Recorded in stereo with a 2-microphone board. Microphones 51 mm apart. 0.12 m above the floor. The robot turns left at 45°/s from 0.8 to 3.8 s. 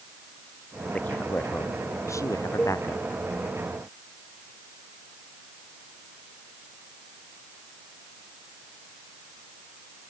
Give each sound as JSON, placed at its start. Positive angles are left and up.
{"t": 0.9, "sound": "a man speaking", "azimuth_deg": 155}
{"t": 2.6, "sound": "a cowbell", "side_deg": 25}